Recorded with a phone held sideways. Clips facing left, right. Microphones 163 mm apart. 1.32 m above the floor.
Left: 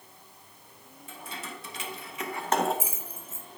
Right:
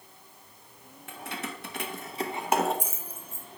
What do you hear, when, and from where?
1.1 s keys jangling: 75° right (ahead or behind), 1.4 m; by 3.5 s 25° left (ahead or behind), 1.5 m